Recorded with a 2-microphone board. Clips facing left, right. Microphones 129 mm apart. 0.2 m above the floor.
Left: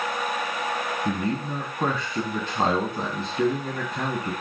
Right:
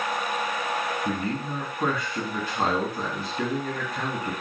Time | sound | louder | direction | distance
1.1 | a man speaking | left 2 dB | 25° left (ahead or behind) | 1.0 m